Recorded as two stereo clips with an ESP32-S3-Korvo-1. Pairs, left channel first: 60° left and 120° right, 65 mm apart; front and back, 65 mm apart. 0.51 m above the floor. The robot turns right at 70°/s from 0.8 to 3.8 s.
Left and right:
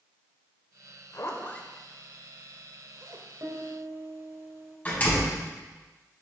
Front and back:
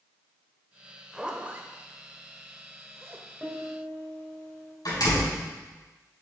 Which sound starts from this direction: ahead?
A door slam, at 4.8 s.